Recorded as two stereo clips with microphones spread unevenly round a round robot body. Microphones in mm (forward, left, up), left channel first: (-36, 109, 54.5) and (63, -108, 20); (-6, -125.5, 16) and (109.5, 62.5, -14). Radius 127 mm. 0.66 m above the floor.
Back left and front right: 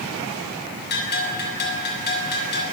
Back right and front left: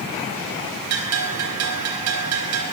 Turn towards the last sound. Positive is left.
turn(degrees=65)